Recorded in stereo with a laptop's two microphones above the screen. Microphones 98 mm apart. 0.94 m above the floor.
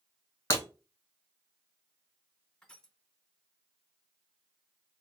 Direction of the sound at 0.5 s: 30° left (ahead or behind).